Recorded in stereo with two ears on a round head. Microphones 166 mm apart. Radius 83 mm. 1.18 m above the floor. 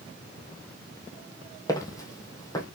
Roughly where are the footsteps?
Centre.